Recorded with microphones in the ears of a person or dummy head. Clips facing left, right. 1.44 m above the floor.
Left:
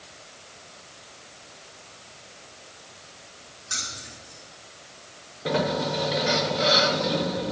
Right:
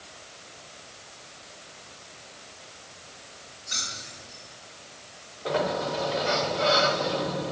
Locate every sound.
3.7 s keys jangling: 85° left, 10 m
5.5 s a sliding door: 30° left (ahead or behind), 1.2 m